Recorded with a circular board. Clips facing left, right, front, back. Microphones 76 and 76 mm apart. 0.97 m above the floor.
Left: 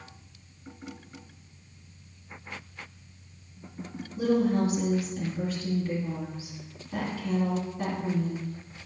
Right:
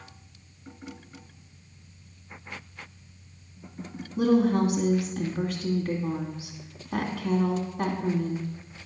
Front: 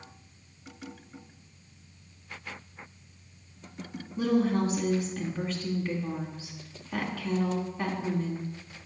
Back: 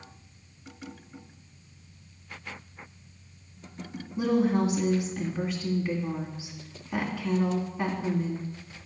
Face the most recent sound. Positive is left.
turn(degrees=-100)